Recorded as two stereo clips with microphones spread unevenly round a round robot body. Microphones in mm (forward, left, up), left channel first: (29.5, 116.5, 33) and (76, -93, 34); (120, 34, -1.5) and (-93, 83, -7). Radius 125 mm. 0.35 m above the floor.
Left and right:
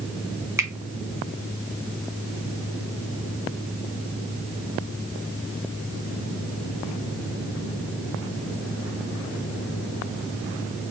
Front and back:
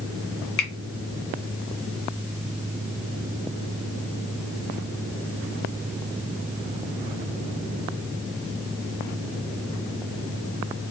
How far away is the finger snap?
About 1.5 m.